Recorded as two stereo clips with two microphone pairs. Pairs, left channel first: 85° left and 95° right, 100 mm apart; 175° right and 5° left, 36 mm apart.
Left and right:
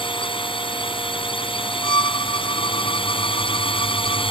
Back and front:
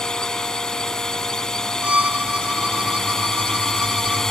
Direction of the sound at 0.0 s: 115° left.